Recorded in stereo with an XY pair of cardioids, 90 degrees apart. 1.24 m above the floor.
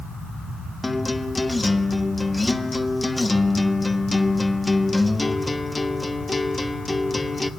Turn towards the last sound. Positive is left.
turn(degrees=20)